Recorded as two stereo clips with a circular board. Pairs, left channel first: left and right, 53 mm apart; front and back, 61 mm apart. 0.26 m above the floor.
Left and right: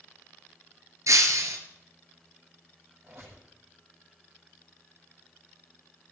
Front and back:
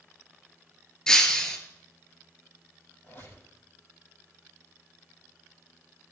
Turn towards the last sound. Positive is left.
turn(degrees=-50)